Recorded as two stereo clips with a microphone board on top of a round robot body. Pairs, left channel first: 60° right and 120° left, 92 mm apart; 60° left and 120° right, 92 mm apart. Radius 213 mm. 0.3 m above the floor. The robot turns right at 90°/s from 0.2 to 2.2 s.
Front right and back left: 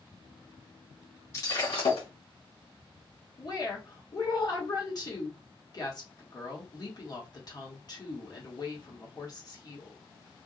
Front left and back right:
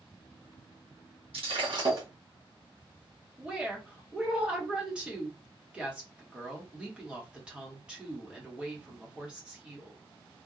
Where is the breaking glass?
120° right, 1.8 m; by 2.1 s 55° right, 1.8 m.